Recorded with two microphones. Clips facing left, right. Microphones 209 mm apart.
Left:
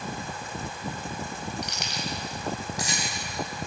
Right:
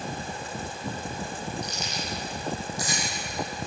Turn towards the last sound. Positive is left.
turn(degrees=75)  # may be behind; listen again after turning